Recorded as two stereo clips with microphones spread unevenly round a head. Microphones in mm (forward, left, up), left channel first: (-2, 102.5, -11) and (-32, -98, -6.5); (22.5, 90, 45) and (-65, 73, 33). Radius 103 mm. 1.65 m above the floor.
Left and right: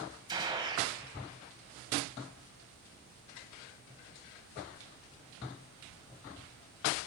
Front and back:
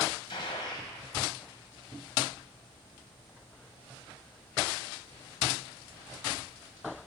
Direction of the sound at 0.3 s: 35° right.